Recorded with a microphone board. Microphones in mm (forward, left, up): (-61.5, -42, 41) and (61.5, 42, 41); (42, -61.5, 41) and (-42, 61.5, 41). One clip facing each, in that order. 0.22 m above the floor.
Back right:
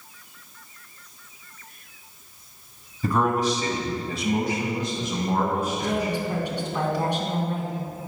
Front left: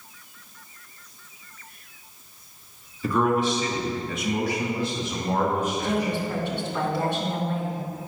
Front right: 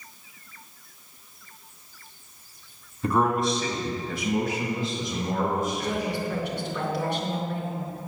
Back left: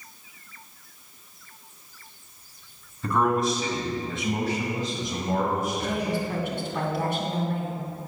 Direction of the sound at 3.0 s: 130° right.